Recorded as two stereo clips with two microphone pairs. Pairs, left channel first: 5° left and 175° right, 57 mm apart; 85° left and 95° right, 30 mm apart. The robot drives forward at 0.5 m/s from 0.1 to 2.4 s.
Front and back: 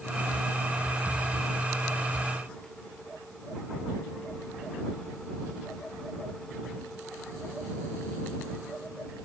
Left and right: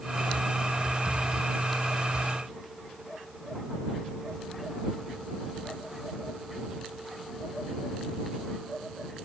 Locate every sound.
Only background noise.